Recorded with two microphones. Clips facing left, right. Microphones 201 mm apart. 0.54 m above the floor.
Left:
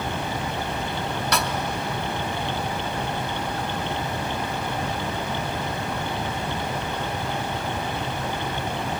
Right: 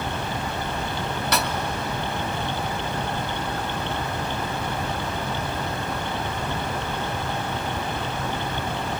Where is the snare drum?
Centre (ahead or behind), 0.8 m.